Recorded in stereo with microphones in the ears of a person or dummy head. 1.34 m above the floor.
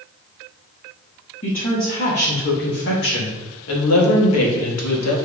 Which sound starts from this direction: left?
A woman speaking, at 1.4 s.